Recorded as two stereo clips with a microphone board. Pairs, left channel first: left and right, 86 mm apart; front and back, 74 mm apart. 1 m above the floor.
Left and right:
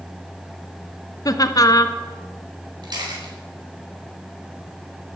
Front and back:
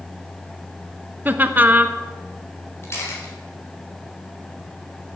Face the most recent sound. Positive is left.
turn(degrees=-55)